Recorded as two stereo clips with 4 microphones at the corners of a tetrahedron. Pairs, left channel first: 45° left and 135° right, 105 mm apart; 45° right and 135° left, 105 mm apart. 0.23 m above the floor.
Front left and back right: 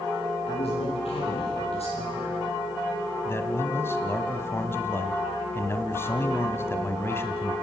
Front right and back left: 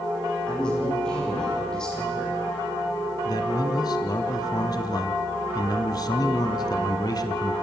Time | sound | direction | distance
0.5 | a man speaking | 35° left | 9.5 m
3.2 | a man speaking | 15° right | 1.8 m